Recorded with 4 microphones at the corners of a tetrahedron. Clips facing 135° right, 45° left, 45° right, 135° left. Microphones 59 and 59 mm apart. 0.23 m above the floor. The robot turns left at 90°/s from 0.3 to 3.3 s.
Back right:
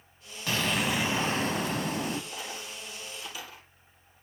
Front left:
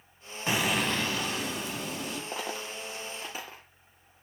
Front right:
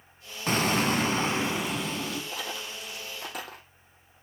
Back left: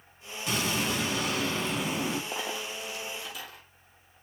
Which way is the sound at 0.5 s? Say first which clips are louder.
Front left 1 dB, front right 5 dB; 15° right.